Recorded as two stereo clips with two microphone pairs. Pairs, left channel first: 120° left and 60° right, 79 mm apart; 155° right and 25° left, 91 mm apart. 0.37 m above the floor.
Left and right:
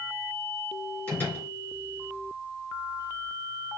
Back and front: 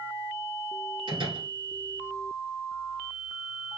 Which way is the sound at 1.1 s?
50° left.